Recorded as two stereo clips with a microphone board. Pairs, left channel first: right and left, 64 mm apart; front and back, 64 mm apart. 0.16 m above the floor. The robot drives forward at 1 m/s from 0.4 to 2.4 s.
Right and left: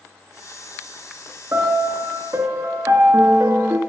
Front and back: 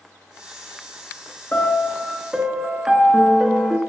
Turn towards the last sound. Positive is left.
turn(degrees=105)